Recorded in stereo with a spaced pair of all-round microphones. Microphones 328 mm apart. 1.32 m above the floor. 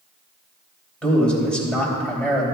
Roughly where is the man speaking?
Centre.